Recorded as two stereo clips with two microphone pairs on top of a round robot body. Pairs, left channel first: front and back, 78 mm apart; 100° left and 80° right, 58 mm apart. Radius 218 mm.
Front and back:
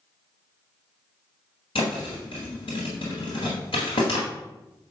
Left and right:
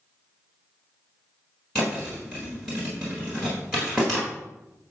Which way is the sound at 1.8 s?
15° left.